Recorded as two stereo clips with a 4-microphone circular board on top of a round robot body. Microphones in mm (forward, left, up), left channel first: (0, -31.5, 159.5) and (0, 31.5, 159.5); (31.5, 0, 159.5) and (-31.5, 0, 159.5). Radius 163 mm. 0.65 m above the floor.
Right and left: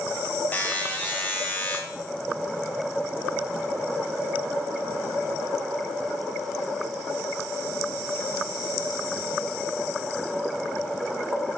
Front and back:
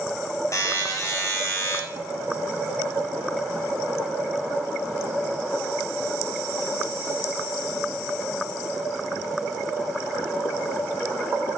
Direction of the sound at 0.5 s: 30° right.